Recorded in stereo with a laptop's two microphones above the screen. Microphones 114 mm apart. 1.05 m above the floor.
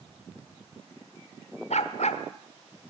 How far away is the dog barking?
About 1.5 m.